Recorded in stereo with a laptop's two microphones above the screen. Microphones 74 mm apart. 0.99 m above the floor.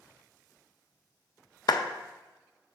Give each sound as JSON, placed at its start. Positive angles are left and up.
{"t": 1.7, "sound": "a clap", "side_deg": 60, "distance_m": 0.6}